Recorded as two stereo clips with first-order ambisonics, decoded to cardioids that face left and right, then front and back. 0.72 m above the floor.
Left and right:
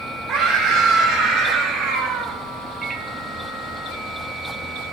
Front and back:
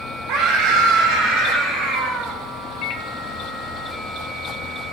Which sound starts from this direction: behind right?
A scream, at 0.3 s.